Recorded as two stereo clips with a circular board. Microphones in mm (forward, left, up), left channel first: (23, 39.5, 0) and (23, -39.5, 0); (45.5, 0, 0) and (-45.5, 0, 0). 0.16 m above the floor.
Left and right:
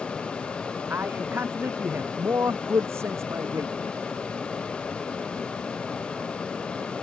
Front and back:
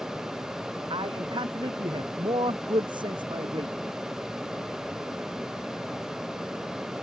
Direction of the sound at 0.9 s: 155° right.